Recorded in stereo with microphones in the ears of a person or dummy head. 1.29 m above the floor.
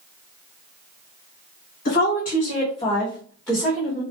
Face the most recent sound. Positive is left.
turn(degrees=-15)  # may be behind; listen again after turning